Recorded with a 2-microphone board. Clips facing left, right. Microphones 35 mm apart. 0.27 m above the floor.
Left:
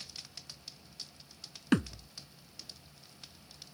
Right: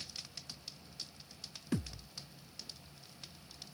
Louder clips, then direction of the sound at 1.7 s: Left 9 dB; 70° left (ahead or behind).